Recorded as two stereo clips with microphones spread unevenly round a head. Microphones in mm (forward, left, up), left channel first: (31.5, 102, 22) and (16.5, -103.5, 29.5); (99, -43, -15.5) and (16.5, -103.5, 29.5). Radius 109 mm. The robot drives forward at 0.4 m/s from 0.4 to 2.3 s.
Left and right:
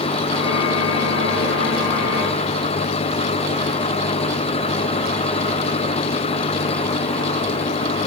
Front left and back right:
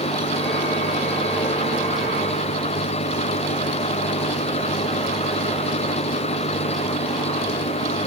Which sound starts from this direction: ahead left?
An engine running, at 0.0 s.